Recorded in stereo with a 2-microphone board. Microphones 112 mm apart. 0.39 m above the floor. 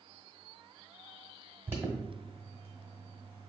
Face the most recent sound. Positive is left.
turn(degrees=-20)  # may be behind; listen again after turning